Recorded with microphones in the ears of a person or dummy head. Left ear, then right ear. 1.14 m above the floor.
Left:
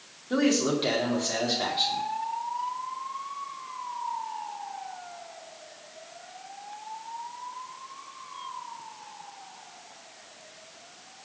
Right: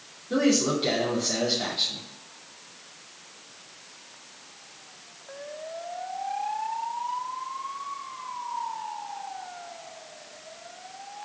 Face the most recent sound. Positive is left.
turn(degrees=35)  # may be behind; listen again after turning